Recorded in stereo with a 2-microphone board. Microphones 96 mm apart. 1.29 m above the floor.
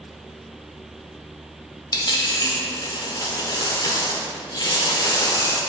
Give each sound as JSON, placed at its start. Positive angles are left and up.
{"t": 1.9, "sound": "a dropped coin", "side_deg": 45, "distance_m": 1.2}